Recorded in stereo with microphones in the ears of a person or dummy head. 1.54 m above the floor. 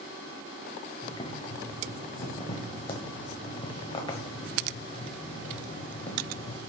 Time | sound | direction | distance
1.0 | boiling | 20° left (ahead or behind) | 0.9 m